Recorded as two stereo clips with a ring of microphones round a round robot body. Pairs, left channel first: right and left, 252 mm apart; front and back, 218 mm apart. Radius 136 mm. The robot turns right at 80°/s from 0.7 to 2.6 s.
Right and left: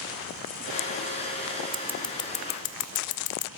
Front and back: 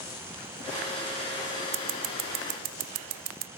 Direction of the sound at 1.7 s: 160° left.